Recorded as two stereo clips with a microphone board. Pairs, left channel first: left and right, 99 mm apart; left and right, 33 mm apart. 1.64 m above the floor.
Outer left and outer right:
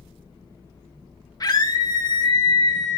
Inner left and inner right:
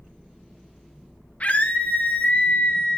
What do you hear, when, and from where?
1.4 s a scream: 40° left (ahead or behind), 2 m